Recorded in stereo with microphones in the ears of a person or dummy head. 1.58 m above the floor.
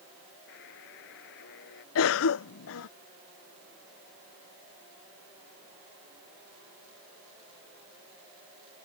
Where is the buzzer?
60° left (ahead or behind).